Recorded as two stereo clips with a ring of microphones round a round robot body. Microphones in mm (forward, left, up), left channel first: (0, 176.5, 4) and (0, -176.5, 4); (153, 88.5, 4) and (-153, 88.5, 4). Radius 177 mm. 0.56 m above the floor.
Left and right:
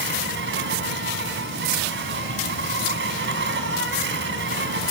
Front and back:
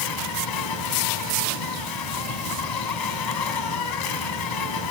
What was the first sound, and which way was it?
An insect, 30° right.